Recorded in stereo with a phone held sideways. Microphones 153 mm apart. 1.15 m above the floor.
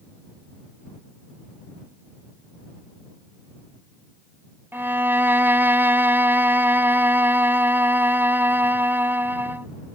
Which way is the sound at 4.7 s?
15° right (ahead or behind).